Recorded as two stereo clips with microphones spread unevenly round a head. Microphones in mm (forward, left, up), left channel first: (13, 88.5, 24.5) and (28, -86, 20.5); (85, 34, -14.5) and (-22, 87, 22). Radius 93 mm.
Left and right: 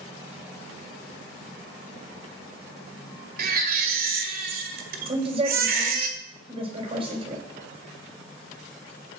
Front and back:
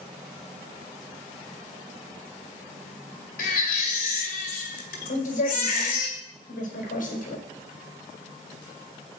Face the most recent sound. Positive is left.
turn(degrees=-25)